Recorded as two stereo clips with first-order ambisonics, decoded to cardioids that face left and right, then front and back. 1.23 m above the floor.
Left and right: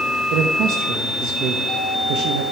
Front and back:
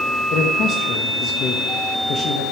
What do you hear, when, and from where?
0.3 s a man speaking: 55° right, 0.9 m